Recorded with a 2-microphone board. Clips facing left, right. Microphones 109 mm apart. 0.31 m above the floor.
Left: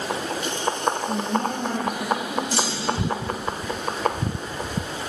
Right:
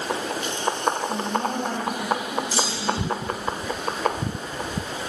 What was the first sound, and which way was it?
A woman speaking, 75° left (ahead or behind).